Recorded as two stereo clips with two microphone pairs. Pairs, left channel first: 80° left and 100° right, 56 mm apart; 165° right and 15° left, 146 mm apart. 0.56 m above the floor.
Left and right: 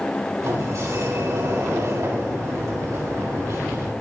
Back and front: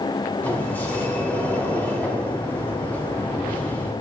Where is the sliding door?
85° right, 4 m.